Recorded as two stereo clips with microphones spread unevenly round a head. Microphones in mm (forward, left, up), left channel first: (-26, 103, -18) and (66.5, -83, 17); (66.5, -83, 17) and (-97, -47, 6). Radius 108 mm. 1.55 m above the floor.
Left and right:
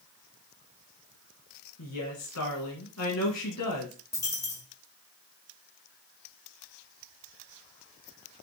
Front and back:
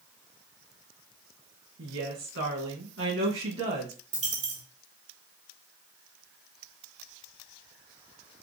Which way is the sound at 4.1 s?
165° right.